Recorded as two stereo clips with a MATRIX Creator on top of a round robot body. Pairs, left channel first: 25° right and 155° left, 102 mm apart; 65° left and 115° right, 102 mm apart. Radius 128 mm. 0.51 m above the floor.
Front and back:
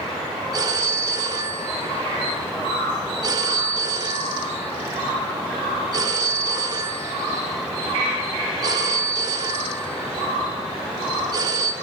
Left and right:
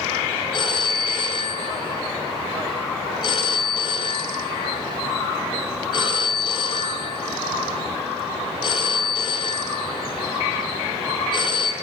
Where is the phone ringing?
105° left, 2 m.